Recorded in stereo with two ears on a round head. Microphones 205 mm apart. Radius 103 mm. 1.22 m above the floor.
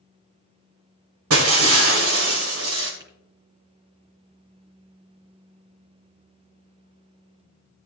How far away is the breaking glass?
About 2 m.